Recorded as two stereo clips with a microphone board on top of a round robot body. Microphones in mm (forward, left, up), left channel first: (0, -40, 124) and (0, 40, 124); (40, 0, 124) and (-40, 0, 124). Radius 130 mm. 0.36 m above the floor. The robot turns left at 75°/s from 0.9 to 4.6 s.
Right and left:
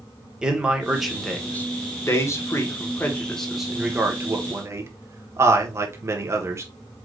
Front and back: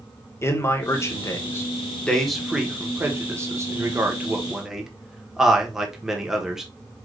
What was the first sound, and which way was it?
A man speaking, 15° left.